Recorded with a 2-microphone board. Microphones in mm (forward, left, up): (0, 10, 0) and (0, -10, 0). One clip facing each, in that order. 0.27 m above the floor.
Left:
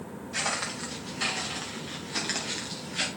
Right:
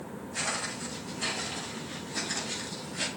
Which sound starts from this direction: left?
Footsteps, at 0.3 s.